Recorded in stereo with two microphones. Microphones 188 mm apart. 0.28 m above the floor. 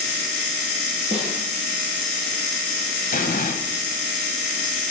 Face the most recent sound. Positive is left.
turn(degrees=50)  # may be behind; listen again after turning